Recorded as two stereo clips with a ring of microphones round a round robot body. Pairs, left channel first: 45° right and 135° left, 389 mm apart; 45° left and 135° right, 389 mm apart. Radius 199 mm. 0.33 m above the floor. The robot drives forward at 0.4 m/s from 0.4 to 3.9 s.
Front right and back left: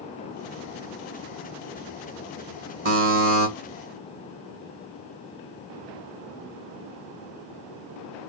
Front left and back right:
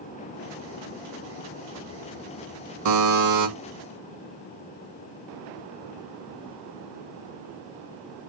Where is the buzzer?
170° right, 1.5 m.